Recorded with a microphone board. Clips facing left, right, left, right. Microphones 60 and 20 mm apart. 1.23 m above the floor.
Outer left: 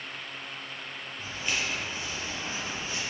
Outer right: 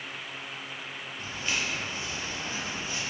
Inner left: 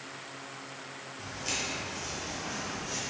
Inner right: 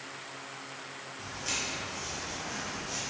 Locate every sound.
1.2 s footsteps: centre (ahead or behind), 1.3 m; by 3.0 s 30° left (ahead or behind), 1.6 m